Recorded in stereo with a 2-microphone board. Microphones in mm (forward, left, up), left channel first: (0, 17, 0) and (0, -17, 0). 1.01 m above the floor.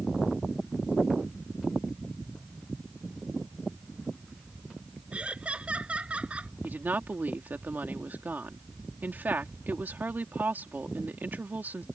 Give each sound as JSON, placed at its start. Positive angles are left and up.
{"t": 5.1, "sound": "laughter", "side_deg": -35}
{"t": 6.6, "sound": "a woman speaking", "side_deg": -70}